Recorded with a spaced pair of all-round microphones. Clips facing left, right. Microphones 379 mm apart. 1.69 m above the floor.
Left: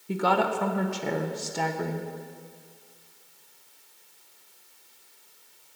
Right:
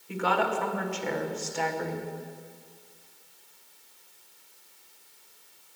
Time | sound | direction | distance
0.1 | a woman speaking | 55° left (ahead or behind) | 0.9 m